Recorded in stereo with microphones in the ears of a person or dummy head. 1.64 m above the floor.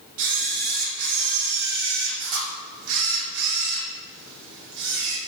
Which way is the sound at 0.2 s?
80° right.